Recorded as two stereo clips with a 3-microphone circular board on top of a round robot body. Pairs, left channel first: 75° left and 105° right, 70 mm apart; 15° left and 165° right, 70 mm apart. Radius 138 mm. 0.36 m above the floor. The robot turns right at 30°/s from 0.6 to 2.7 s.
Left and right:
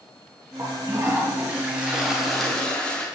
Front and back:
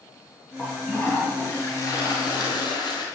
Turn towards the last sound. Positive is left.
turn(degrees=0)